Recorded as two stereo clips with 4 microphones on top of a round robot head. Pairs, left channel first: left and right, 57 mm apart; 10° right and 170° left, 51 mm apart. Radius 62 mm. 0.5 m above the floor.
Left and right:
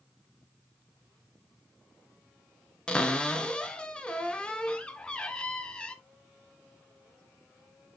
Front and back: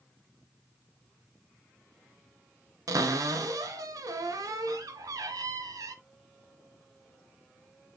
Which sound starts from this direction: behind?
A cupboard door, at 2.9 s.